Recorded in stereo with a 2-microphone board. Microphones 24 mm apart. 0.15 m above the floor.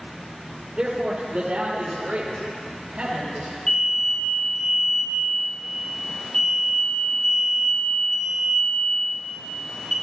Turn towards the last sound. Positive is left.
turn(degrees=15)  # may be behind; listen again after turning